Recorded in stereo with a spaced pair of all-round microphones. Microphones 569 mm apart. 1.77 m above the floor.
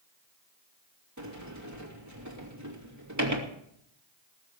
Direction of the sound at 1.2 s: 30° right (ahead or behind).